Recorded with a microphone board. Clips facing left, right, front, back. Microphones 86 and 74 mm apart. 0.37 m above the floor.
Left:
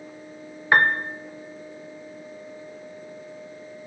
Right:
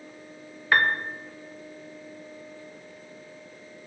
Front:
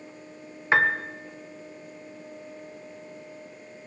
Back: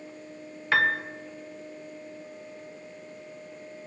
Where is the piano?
45° left, 1.3 m.